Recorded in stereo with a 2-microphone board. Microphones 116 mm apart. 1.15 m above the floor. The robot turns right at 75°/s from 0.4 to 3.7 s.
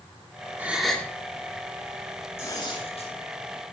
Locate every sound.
0.6 s a gasp: 20° right, 2.5 m; by 1.1 s 20° left, 2.5 m
2.4 s tearing paper: 20° left, 8 m; by 3.1 s 80° left, 8 m